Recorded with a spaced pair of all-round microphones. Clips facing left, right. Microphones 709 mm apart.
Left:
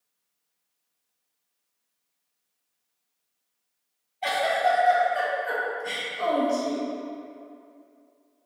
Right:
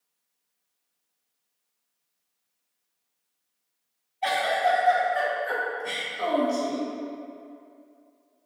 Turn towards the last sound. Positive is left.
turn(degrees=5)  # may be behind; listen again after turning